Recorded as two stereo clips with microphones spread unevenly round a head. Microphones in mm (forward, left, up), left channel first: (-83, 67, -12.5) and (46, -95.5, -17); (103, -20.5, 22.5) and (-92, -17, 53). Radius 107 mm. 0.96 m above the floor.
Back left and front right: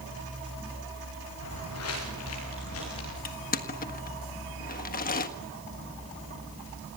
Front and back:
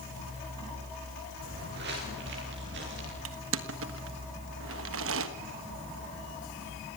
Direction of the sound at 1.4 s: 135° left.